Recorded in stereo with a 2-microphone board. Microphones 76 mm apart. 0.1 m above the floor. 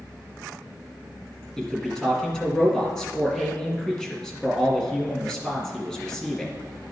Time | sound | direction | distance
1.6 | a man speaking | 10° left (ahead or behind) | 1.8 m